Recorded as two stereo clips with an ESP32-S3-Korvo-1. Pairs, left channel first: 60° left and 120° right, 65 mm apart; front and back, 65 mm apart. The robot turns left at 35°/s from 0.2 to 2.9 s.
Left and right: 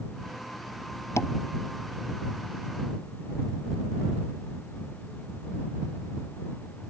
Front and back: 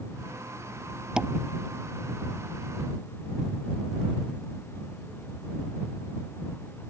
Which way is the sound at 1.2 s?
100° left.